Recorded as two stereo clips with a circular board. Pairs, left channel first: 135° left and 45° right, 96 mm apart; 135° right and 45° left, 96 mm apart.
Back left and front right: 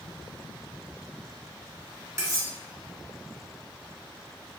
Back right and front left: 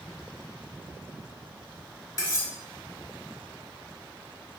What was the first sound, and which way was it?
Cutlery clinking, 95° right.